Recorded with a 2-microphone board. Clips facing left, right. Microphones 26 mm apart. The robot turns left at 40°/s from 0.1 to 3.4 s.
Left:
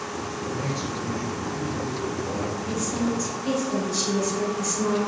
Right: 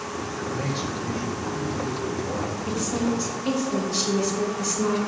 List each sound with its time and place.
0.3 s a man speaking: 60° right, 4.5 m; by 2.6 s 150° right, 4.5 m
2.7 s a woman speaking: 65° right (ahead or behind), 3.5 m; by 5.1 s 40° right (ahead or behind), 3.5 m